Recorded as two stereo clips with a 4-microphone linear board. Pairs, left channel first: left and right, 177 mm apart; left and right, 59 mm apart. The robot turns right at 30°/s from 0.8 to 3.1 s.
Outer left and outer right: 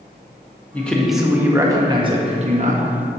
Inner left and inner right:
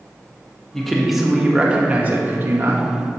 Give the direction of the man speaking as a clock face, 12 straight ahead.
6 o'clock.